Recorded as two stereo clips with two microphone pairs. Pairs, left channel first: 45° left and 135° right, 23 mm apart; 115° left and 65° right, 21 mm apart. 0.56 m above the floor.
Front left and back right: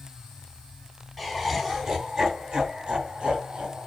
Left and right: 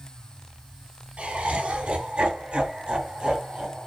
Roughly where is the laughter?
Ahead right.